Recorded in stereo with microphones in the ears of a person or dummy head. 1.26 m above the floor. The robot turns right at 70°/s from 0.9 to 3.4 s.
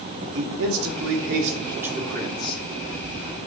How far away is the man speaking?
About 2 m.